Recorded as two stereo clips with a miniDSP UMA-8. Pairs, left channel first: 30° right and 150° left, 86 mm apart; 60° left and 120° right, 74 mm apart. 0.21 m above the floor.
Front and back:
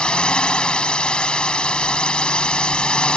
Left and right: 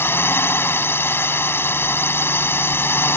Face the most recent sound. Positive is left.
turn(degrees=40)